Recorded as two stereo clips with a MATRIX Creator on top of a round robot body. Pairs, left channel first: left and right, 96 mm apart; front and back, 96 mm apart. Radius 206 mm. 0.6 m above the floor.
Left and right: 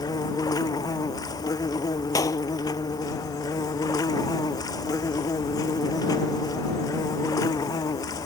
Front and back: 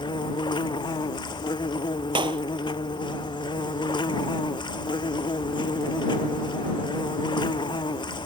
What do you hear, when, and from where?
0.0 s an insect: 40° left
2.1 s a clap: 145° left